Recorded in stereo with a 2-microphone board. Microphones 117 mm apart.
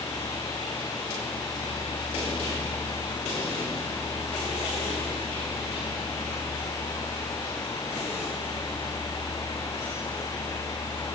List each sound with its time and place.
Only background noise.